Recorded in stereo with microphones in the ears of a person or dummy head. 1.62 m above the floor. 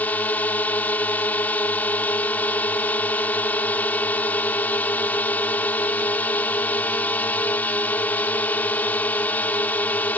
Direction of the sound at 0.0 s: 15° left (ahead or behind).